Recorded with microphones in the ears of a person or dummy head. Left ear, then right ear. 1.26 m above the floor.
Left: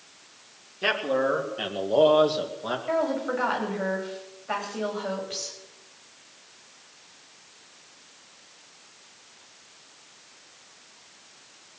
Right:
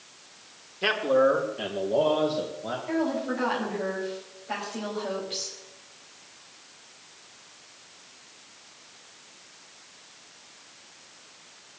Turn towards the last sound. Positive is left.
turn(degrees=35)  # may be behind; listen again after turning